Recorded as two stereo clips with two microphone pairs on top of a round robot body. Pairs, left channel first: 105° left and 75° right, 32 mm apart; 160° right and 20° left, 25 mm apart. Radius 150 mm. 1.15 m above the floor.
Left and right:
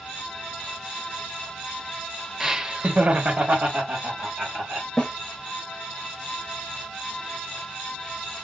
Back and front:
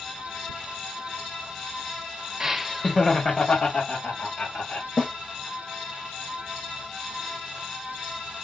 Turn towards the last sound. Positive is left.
turn(degrees=175)